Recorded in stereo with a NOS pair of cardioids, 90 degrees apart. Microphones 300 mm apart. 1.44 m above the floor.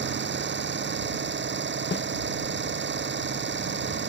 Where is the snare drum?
35° left.